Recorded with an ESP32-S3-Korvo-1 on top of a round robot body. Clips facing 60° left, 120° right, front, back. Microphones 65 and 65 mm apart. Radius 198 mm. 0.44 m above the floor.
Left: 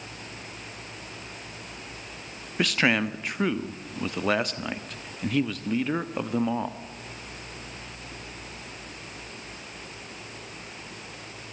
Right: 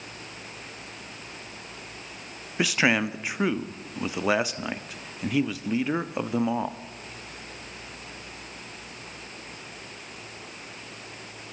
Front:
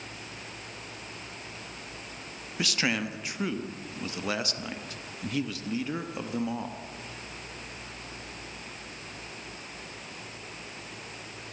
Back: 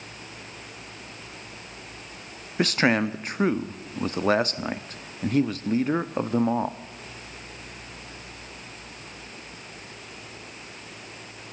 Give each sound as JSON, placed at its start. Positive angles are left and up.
{"t": 2.6, "sound": "a man speaking", "azimuth_deg": 160, "distance_m": 1.3}